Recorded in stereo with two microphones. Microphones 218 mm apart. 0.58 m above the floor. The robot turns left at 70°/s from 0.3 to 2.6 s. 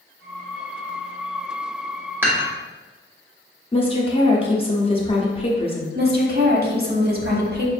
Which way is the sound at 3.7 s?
25° left (ahead or behind).